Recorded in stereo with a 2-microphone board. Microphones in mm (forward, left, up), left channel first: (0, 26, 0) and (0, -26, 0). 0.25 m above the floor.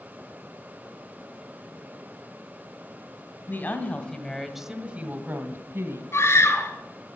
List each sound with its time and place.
3.5 s a woman speaking: 45° left (ahead or behind), 1.9 m; by 6.0 s 55° right (ahead or behind), 2.5 m
6.1 s a scream: 65° left (ahead or behind), 3 m